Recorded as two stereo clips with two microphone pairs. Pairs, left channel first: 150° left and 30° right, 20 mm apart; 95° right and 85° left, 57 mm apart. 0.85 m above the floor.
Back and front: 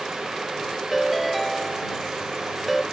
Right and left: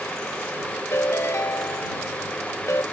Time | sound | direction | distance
0.9 | a ringtone | 120° right | ?